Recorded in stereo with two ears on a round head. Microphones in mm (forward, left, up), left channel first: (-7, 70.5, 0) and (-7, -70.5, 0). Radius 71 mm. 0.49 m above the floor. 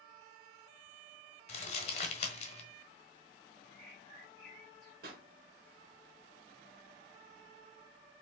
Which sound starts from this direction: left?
Crumpling, at 1.5 s.